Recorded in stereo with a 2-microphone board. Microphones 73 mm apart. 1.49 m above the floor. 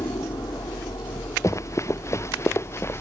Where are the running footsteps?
40° left (ahead or behind); by 3.0 s 35° left (ahead or behind).